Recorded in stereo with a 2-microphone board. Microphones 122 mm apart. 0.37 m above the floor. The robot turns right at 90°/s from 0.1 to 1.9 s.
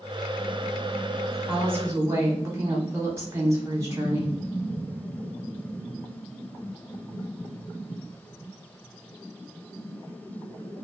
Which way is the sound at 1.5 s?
165° right.